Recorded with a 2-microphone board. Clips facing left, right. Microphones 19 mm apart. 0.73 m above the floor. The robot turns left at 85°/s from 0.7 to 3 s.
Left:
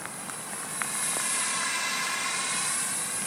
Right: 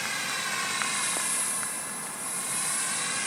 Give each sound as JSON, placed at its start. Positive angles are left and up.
{"t": 0.0, "sound": "a drone", "side_deg": -55}